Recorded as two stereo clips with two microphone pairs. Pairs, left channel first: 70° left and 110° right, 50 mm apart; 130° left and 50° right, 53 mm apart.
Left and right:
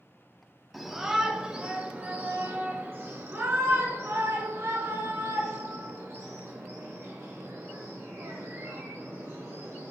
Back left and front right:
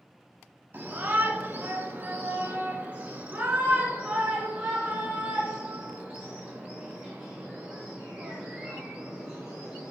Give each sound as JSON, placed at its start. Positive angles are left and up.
{"t": 0.7, "sound": "a shout", "azimuth_deg": -30, "distance_m": 1.2}